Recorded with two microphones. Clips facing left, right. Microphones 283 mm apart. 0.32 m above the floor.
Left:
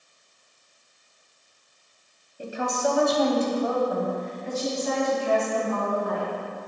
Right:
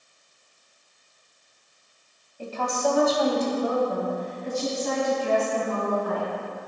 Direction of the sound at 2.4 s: 20° left (ahead or behind).